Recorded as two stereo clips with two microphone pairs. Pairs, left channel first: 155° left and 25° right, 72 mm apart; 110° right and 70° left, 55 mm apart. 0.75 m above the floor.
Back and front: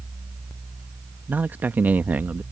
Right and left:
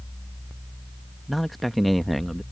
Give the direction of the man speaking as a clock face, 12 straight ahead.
1 o'clock.